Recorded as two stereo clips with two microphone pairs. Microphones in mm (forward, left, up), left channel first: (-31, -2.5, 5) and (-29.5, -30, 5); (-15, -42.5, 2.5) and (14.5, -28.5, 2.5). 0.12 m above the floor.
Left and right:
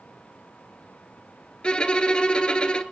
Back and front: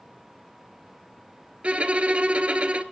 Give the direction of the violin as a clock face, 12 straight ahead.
10 o'clock.